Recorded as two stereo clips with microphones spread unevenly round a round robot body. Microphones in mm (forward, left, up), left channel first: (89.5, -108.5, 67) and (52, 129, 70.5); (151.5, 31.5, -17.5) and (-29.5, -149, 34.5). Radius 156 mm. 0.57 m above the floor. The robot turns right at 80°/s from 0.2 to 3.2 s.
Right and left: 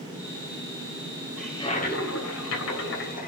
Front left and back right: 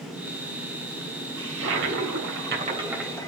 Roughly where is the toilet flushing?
Behind.